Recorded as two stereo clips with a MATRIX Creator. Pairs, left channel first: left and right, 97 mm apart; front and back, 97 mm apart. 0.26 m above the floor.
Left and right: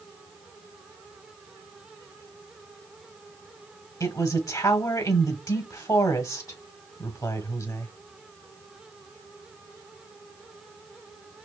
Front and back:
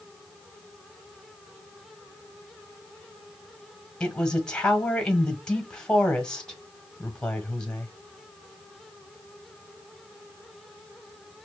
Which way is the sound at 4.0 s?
75° left.